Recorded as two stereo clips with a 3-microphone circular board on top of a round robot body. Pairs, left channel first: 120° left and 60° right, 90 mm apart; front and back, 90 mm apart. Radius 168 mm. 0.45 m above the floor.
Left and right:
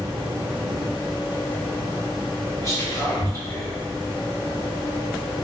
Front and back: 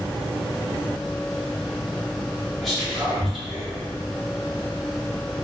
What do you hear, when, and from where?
2.6 s whispering: 90° left, 1.7 m